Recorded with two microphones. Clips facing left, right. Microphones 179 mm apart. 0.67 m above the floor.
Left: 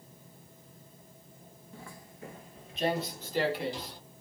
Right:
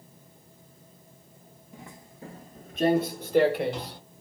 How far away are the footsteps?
About 0.7 m.